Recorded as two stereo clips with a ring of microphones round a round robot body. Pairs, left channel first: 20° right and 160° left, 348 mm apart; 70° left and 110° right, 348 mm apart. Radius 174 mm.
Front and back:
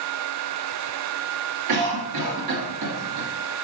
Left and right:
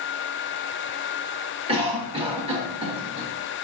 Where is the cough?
175° left, 1.1 m.